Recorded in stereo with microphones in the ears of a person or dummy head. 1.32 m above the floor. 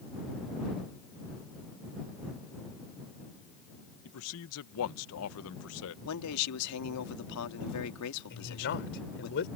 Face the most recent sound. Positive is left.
turn(degrees=55)  # may be behind; listen again after turning